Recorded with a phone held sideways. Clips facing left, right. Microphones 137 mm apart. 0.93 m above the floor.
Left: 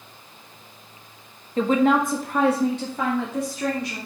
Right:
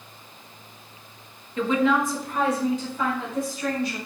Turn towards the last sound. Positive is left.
turn(degrees=80)